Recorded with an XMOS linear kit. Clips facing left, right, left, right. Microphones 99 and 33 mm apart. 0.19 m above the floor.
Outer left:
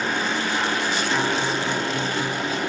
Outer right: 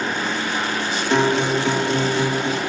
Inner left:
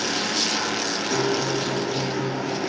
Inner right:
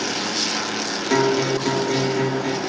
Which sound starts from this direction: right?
A guitar, at 1.1 s.